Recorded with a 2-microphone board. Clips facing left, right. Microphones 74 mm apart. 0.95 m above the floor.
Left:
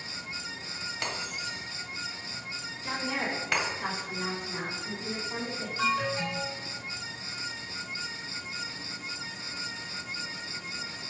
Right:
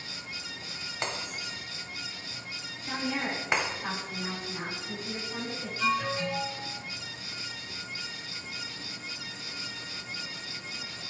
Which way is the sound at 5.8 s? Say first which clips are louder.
Even; 70° left (ahead or behind).